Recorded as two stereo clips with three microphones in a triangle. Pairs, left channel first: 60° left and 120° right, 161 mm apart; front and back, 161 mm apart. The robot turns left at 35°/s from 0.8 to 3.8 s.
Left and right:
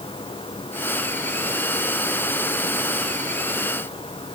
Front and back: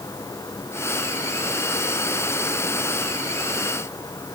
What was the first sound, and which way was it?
Only background noise.